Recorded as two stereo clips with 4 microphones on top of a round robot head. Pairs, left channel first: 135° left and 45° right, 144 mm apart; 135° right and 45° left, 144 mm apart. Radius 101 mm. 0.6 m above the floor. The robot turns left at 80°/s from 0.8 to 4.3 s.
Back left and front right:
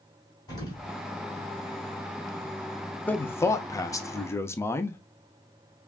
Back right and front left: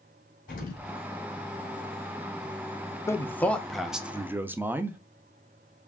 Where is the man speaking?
165° right, 0.6 m; by 5.0 s 95° left, 0.6 m.